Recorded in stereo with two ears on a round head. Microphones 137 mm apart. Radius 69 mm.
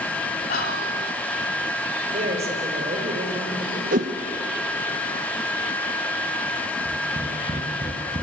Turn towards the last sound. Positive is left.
turn(degrees=-30)  # may be behind; listen again after turning